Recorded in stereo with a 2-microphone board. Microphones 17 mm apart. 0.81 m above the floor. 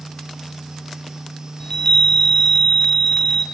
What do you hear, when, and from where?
1.6 s a chime: 35° left (ahead or behind), 0.7 m